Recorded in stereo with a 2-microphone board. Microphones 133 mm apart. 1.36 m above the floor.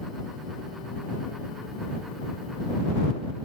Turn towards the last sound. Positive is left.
No sound to turn to.